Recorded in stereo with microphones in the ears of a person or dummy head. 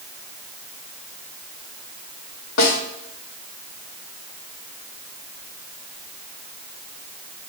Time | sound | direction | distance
2.6 | a snare drum | 75° left (ahead or behind) | 1.7 m